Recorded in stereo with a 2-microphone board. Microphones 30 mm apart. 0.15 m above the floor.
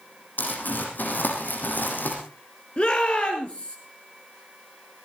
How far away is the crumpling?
About 5 m.